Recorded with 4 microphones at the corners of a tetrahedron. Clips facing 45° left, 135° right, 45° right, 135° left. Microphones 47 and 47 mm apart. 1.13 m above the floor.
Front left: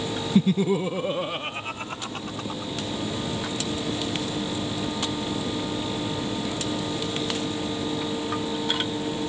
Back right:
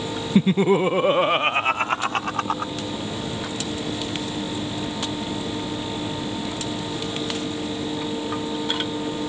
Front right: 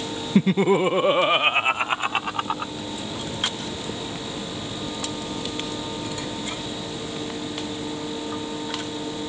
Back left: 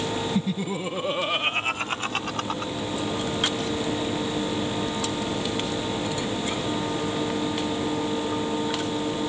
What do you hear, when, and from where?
0.3 s laughter: 80° right; by 2.7 s 120° right